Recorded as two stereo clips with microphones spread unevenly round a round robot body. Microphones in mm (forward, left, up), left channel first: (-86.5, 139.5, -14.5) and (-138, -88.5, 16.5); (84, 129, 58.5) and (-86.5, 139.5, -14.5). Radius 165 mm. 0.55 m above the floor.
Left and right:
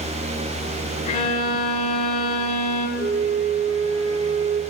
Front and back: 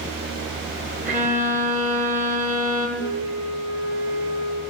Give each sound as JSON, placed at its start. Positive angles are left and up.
{"t": 1.1, "sound": "a violin", "azimuth_deg": 135, "distance_m": 5.5}
{"t": 3.0, "sound": "a flute", "azimuth_deg": -40, "distance_m": 4.0}